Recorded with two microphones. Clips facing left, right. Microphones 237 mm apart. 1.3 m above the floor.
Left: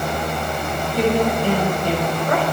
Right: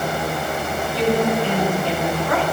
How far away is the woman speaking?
About 7 m.